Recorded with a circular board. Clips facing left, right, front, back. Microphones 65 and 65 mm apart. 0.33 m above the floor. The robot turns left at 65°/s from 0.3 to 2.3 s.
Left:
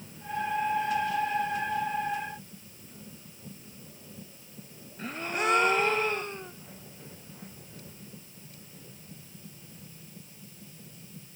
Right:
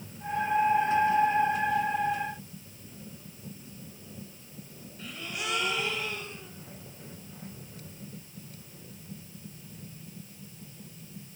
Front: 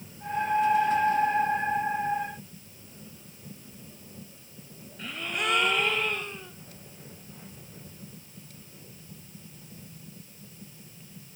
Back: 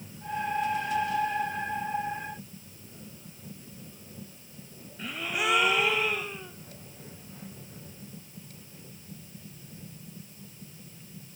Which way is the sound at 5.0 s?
100° left.